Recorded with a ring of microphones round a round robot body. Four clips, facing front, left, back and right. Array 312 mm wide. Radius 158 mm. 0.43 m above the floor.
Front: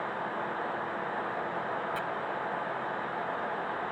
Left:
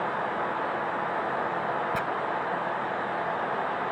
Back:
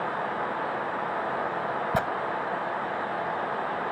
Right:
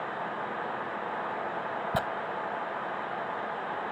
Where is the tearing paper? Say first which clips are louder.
Even, back 8 dB; 155° right.